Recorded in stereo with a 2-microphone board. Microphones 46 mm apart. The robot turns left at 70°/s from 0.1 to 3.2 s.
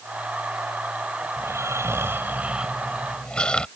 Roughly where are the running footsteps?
No running footsteps in this recording.